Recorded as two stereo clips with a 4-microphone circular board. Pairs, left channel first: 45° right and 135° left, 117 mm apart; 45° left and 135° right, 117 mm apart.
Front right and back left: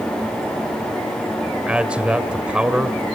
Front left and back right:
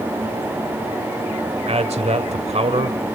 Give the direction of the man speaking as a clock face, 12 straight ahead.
5 o'clock.